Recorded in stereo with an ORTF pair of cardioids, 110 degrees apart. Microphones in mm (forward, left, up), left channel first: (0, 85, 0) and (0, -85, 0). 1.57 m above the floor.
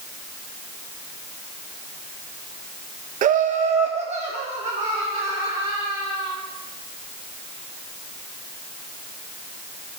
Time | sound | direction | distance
3.2 | laughter | 55° right | 0.6 m